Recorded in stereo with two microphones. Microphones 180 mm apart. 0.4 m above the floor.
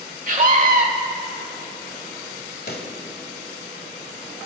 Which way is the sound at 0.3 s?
50° right (ahead or behind).